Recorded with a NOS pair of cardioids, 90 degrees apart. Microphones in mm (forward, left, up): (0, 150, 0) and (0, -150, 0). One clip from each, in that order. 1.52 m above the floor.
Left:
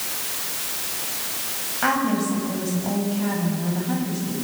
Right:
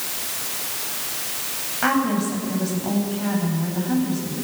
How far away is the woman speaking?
About 8.5 m.